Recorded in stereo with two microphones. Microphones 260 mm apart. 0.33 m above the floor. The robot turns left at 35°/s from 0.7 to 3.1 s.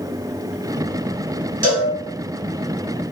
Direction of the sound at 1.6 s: 35° right (ahead or behind).